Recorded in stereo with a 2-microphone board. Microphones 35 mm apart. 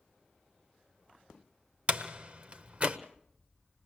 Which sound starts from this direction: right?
A door slam, at 1.9 s.